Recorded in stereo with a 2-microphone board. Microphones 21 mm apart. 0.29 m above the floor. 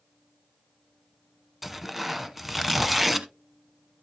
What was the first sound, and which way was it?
Tearing paper, 10° right (ahead or behind).